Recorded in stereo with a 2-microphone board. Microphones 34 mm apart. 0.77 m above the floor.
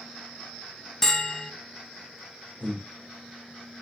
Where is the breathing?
70° right (ahead or behind), 1.7 m.